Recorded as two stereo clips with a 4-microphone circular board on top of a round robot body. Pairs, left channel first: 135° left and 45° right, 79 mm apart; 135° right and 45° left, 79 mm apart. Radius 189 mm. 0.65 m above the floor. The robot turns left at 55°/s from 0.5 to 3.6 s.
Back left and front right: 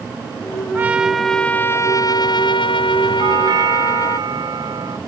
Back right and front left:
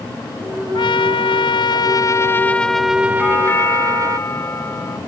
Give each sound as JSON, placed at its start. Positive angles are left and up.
{"t": 0.7, "sound": "a trumpet", "azimuth_deg": -110}
{"t": 3.2, "sound": "a doorbell", "azimuth_deg": -55}